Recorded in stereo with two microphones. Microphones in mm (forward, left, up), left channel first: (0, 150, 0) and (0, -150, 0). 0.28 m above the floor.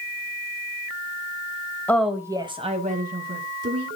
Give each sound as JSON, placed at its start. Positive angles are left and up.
{"t": 1.9, "sound": "a woman speaking", "side_deg": 5, "distance_m": 1.0}